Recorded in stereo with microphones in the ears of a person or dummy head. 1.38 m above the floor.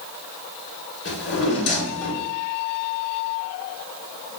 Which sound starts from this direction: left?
A drawer, at 1.1 s.